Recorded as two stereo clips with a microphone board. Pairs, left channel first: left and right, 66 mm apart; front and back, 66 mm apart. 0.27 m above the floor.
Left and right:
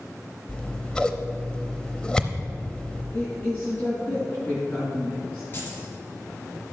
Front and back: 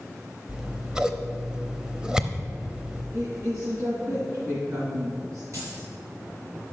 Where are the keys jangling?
145° left, 3.5 m.